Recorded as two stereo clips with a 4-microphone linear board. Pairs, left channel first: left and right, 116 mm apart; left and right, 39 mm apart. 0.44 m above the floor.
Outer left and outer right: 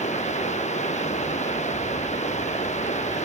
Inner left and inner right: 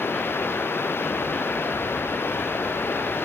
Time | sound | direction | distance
0.0 | running water | 85° left | ?